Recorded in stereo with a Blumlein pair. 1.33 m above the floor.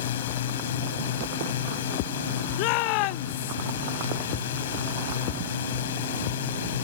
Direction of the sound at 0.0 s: 60° left.